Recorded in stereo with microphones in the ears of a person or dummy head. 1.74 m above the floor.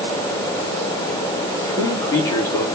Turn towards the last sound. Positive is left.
turn(degrees=15)  # may be behind; listen again after turning